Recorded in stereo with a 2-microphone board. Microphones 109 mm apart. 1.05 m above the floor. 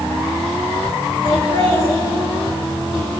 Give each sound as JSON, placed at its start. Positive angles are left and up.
{"t": 1.2, "sound": "laughter", "side_deg": 50, "distance_m": 5.0}